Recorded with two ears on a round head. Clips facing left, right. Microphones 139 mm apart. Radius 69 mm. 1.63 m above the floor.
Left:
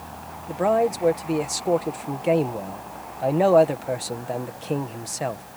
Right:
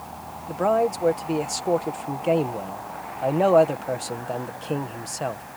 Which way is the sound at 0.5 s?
5° left (ahead or behind).